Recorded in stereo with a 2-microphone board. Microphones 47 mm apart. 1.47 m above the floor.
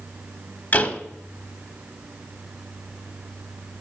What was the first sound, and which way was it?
A door slam, 35° left (ahead or behind).